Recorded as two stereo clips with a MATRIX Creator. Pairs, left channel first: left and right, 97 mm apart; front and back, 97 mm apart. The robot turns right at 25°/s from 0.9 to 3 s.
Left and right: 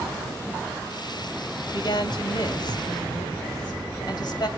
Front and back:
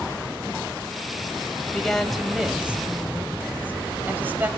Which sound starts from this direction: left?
A woman speaking, at 1.7 s.